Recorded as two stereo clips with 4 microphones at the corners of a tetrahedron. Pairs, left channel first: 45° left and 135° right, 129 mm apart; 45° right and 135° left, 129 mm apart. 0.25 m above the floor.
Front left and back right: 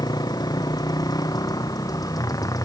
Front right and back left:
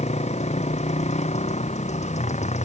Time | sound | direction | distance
0.0 | a motorcycle | 15° right | ?